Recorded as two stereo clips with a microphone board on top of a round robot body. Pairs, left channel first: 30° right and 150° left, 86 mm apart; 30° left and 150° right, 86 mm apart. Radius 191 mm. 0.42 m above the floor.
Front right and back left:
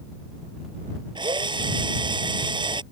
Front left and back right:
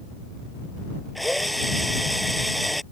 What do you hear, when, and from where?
1.1 s a drill: 120° left